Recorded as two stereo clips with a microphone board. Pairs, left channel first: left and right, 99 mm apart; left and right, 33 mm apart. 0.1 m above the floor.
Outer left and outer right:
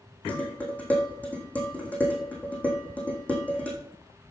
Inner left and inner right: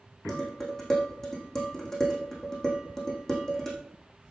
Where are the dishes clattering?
15° left (ahead or behind), 4 m.